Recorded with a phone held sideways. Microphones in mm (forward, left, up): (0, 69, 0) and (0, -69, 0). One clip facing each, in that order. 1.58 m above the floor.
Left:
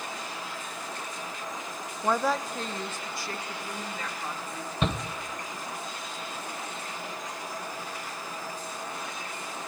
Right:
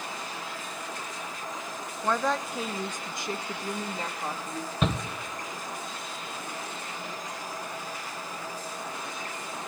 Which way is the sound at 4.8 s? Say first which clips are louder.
Right 1 dB; centre (ahead or behind).